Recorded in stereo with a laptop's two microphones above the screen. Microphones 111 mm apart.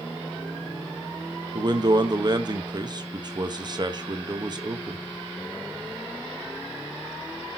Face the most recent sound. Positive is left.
turn(degrees=-40)  # may be behind; listen again after turning